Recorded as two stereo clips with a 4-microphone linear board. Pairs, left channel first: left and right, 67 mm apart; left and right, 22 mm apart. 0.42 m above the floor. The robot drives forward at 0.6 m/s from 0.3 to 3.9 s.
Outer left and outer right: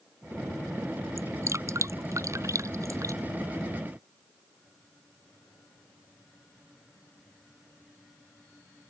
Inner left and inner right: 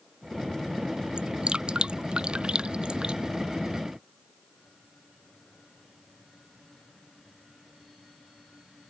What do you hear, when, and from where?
1.2 s dripping: 45° right (ahead or behind); by 3.2 s 50° right (ahead or behind)